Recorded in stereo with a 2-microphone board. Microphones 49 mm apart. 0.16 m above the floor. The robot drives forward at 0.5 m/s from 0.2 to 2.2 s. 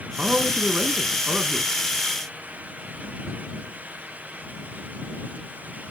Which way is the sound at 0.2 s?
30° right (ahead or behind).